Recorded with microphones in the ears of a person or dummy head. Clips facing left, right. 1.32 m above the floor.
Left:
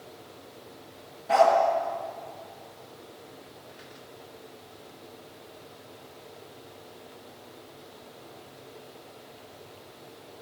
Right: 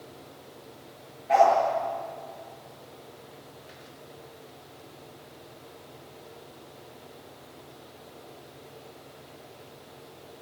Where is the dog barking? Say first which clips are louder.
Even; 70° left (ahead or behind), 6 m.